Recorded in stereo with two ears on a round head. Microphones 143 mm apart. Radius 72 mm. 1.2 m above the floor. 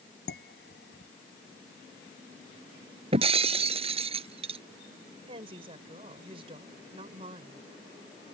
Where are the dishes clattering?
75° left (ahead or behind).